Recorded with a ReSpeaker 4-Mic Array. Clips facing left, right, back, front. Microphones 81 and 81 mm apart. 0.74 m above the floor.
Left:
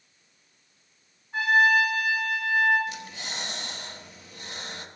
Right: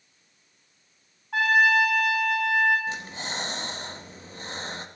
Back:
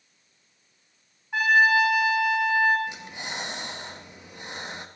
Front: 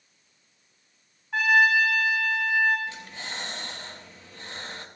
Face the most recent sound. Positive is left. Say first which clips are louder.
# right 4 dB, back 2 dB
turn(degrees=-115)